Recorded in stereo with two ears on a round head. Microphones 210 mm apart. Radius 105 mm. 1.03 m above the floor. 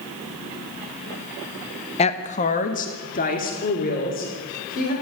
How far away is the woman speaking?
About 1.0 m.